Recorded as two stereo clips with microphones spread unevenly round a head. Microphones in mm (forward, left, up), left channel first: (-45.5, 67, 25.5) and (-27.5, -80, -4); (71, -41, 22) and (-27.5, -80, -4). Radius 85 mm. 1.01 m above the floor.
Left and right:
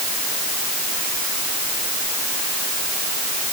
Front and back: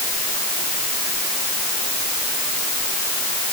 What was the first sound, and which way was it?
Only background noise.